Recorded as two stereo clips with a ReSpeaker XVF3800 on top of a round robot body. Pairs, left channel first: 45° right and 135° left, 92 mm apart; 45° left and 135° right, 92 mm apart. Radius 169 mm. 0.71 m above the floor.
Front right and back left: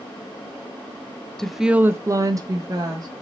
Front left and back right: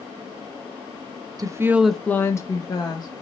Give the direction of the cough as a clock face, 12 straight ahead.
No cough in this recording.